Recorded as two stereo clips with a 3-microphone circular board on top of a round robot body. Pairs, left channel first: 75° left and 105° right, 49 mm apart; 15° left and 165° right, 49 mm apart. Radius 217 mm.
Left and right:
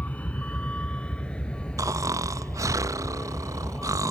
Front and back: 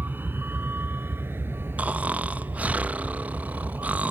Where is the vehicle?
140° left; by 4.1 s 150° left.